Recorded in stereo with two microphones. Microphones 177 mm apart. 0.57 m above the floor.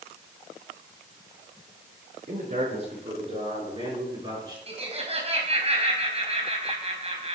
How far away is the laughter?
About 4 m.